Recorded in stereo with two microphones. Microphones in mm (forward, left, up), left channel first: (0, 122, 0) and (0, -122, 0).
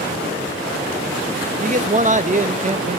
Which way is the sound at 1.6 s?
30° right (ahead or behind).